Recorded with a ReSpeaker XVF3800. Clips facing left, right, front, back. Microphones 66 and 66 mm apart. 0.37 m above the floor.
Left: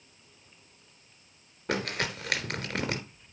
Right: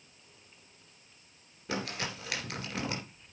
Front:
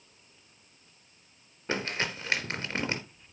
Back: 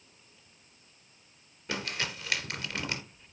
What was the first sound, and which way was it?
Crumpling, 55° left.